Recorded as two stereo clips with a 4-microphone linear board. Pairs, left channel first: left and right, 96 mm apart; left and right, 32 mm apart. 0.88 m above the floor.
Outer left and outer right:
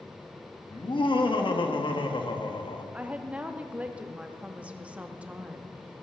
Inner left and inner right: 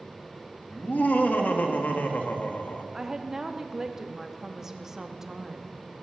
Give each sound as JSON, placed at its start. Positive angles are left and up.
{"t": 0.7, "sound": "laughter", "side_deg": 60, "distance_m": 1.6}
{"t": 2.9, "sound": "a woman speaking", "side_deg": -15, "distance_m": 1.1}